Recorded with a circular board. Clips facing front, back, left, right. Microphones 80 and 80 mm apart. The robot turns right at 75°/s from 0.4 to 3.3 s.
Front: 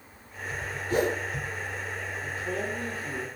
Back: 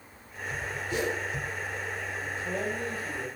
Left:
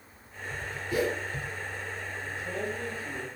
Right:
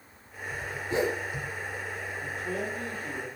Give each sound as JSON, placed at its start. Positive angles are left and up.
{"t": 0.9, "sound": "a whoosh", "azimuth_deg": -35, "distance_m": 0.7}
{"t": 2.2, "sound": "a man speaking", "azimuth_deg": -105, "distance_m": 3.5}